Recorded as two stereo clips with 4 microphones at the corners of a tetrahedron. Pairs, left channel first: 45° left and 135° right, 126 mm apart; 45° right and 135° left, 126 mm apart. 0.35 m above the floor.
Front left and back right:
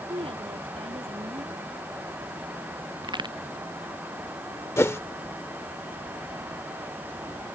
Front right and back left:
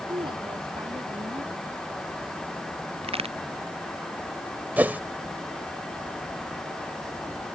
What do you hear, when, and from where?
0.1 s a woman speaking: 175° right
3.0 s a crack: 175° left
4.8 s a whoosh: 85° left